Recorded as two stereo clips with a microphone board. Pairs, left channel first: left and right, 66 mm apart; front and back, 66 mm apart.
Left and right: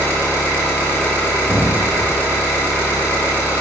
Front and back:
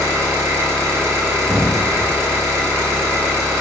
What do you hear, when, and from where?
0.0 s an engine running: 145° left, 1.1 m
1.5 s an explosion: 140° right, 0.6 m